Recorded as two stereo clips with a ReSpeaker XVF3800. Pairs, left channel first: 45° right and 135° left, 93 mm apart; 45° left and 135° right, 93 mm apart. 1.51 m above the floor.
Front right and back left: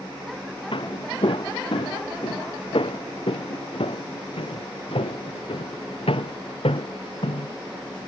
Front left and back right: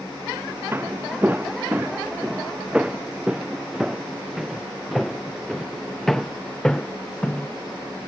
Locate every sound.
0.7 s footsteps: 70° right; by 7.5 s 35° right